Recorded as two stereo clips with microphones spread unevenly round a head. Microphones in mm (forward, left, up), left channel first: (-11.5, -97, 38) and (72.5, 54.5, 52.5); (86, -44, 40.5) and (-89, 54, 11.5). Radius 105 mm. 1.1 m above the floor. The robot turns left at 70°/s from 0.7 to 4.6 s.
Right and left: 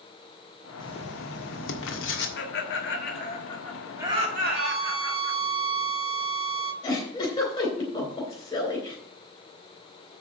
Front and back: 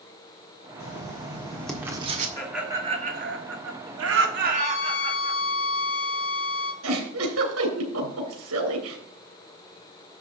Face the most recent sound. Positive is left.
turn(degrees=170)